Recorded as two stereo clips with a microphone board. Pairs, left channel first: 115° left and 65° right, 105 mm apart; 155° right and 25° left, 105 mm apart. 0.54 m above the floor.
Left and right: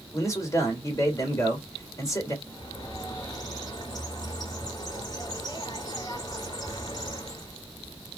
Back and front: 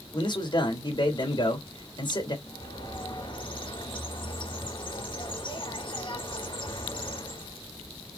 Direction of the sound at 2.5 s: 165° left.